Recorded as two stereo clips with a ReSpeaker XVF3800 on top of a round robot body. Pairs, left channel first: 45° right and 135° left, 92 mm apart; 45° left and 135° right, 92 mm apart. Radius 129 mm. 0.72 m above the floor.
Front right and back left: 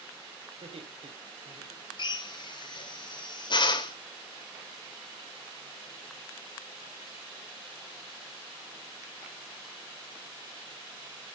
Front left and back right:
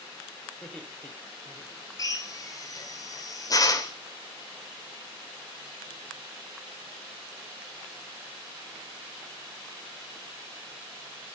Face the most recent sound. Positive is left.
turn(degrees=-5)